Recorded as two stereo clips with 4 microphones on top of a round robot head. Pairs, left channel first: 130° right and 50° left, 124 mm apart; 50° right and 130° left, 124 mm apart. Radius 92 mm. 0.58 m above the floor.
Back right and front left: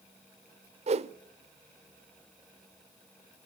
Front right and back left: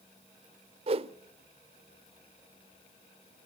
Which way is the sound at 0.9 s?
85° left.